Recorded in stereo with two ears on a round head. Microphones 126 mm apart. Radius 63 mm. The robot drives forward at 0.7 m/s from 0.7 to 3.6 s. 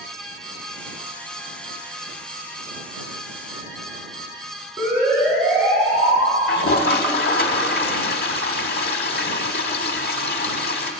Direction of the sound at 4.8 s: 5° right (ahead or behind).